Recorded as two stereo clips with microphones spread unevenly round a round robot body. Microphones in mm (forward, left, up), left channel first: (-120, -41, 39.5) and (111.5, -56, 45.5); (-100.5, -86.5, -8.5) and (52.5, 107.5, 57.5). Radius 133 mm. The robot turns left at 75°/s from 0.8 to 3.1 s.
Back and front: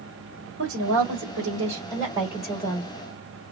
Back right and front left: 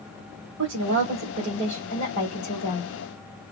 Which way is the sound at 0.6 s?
25° left.